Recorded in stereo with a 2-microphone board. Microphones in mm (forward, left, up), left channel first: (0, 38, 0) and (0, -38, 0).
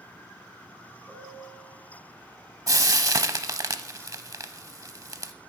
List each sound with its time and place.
1.1 s a piano: centre (ahead or behind), 3.5 m
2.7 s frying: 45° right (ahead or behind), 0.6 m